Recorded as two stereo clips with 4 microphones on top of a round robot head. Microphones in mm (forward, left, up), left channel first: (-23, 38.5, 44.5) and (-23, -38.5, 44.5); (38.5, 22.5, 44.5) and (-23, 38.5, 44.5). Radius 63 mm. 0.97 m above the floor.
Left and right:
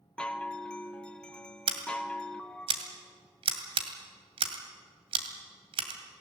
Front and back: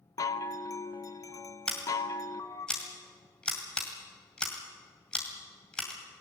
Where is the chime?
15° left, 1.1 m.